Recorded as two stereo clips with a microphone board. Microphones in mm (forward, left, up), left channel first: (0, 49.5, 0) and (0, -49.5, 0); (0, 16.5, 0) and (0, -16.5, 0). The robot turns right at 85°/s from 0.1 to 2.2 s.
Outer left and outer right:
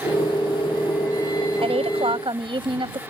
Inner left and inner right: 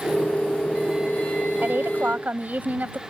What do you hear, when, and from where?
1.6 s a woman speaking: 105° right; by 3.0 s 55° right